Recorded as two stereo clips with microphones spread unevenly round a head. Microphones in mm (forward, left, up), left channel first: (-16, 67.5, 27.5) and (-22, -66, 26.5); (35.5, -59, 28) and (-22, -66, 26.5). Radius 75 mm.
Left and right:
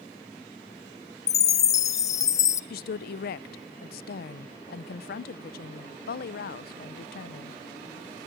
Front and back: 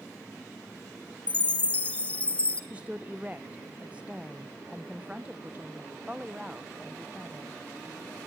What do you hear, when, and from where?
1.3 s a chime: 50° left, 0.6 m
2.7 s a woman speaking: 105° left, 0.8 m